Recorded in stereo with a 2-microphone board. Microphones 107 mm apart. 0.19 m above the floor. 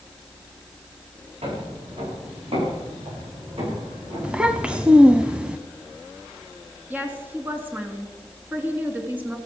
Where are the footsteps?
75° right (ahead or behind), 10 m; by 4.9 s 60° right (ahead or behind), 9.5 m.